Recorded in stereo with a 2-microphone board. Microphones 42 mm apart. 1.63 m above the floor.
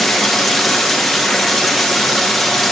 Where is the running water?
Centre (ahead or behind), 1.0 m.